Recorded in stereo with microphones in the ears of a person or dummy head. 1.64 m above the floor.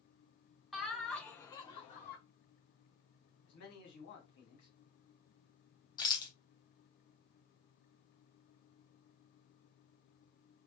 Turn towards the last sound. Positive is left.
turn(degrees=25)  # may be behind; listen again after turning